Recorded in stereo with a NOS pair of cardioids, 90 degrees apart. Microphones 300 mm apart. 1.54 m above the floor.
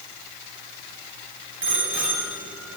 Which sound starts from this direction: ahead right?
A bicycle bell, at 1.6 s.